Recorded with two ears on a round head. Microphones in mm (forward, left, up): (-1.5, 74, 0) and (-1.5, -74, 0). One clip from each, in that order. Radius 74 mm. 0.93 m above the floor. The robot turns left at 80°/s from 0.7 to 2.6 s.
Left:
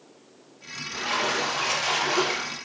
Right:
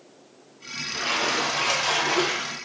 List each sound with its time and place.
0.9 s a splash: 65° right, 0.9 m; by 2.5 s 165° left, 0.9 m